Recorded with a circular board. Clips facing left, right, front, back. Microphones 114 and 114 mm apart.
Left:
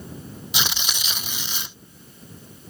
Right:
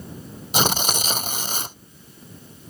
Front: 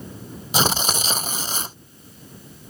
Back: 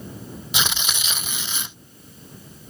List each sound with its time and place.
0.5 s tearing paper: 50° right